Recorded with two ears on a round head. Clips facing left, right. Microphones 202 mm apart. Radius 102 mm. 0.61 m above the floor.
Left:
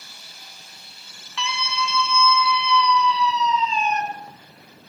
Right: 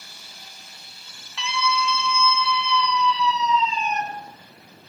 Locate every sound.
1.4 s a scream: 65° left (ahead or behind), 4.5 m; by 4.0 s 80° left, 7 m